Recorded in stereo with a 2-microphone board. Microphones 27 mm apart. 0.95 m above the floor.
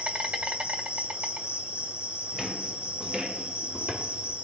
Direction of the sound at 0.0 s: 60° right (ahead or behind).